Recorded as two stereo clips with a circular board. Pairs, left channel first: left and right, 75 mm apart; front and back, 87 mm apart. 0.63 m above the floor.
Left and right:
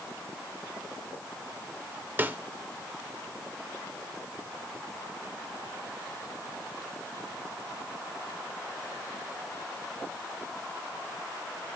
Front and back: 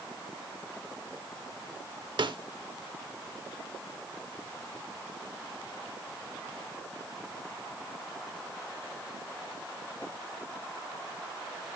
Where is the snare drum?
150° right, 0.9 m.